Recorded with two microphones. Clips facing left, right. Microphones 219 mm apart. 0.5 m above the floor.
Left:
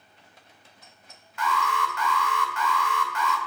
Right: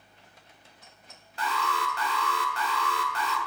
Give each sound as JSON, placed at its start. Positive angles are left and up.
{"t": 1.4, "sound": "an alarm", "side_deg": -35, "distance_m": 1.7}